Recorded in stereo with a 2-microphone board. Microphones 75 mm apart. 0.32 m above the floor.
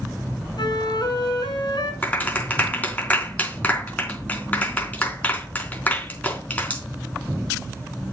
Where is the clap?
20° left (ahead or behind), 3.5 m.